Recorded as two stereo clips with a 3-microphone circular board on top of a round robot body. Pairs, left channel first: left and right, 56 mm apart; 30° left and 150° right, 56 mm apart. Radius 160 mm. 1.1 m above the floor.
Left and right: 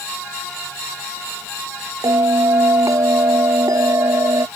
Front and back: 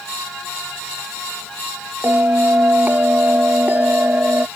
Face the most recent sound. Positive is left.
turn(degrees=-90)